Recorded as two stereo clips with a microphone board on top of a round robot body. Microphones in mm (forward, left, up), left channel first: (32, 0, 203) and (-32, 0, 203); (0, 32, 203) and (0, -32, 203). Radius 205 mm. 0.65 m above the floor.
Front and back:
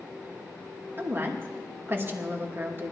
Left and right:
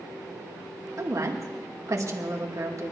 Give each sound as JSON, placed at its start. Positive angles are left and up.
{"t": 1.0, "sound": "a woman speaking", "azimuth_deg": -125, "distance_m": 2.5}